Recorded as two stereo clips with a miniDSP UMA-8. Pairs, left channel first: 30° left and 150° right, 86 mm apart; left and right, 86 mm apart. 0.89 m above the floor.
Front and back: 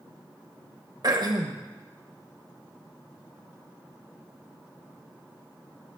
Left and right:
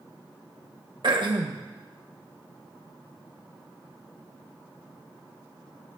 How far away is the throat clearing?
About 0.8 m.